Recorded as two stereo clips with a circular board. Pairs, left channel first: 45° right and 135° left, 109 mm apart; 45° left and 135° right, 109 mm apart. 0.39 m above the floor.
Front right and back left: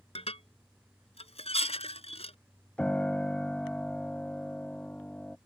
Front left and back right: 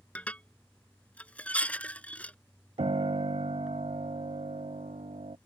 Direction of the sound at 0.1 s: 30° right.